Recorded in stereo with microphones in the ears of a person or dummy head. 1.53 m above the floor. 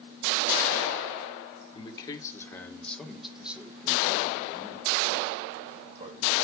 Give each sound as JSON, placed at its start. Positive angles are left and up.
{"t": 1.7, "sound": "a man speaking", "side_deg": 25, "distance_m": 1.5}